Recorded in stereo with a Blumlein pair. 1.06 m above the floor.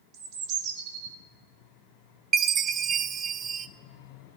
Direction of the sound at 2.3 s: 25° right.